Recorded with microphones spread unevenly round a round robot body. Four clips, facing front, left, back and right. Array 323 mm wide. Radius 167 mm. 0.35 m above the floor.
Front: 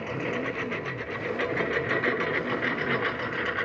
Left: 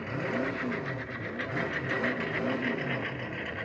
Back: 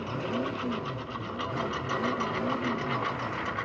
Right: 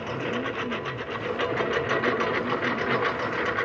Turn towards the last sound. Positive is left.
turn(degrees=-65)